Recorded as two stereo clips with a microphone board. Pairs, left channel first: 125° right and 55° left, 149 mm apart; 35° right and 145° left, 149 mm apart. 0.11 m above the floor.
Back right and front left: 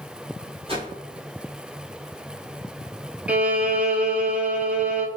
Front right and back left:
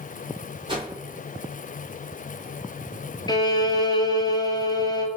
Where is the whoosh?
100° left, 1.3 m.